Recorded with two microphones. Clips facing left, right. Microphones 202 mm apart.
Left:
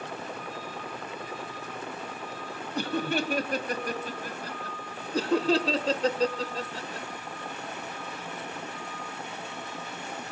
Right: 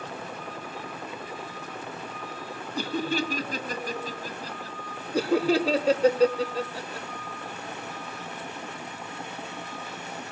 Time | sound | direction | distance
2.8 | laughter | 60° left (ahead or behind) | 2.5 m
5.1 | laughter | 10° right (ahead or behind) | 0.9 m